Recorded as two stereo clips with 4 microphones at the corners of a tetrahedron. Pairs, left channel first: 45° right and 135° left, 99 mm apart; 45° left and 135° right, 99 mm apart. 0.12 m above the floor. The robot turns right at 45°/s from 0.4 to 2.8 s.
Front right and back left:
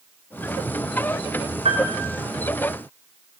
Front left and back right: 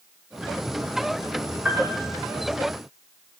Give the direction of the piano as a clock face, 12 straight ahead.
7 o'clock.